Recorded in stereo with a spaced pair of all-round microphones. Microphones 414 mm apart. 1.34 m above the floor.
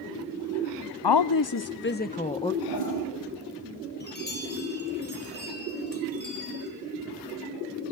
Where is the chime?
25° left (ahead or behind), 4 m.